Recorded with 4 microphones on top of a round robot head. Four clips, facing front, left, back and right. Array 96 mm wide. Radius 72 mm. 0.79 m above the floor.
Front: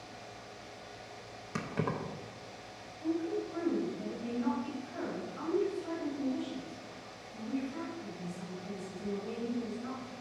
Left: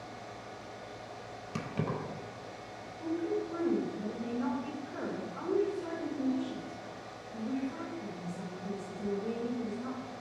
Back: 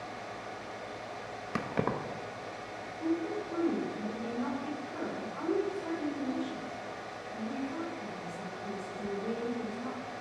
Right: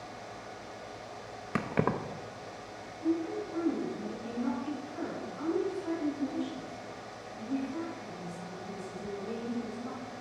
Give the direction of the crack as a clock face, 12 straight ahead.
No crack in this recording.